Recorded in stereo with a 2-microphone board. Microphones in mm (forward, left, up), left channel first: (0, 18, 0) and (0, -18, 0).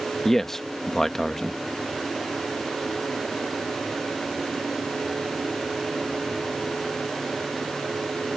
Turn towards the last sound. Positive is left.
turn(degrees=10)  # may be behind; listen again after turning